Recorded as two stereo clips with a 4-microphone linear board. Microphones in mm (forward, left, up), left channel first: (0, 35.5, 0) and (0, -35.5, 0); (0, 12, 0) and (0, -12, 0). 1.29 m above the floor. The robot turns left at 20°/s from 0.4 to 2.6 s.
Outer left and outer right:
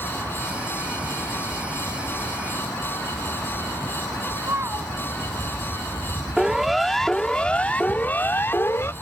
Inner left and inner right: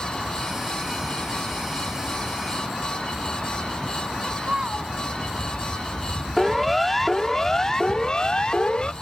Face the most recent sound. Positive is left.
turn(degrees=40)  # may be behind; listen again after turning